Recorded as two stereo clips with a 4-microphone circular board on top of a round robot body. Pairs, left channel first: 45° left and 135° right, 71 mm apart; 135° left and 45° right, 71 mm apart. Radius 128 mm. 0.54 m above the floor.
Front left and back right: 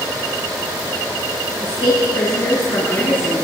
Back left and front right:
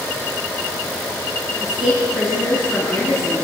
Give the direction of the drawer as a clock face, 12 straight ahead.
No drawer in this recording.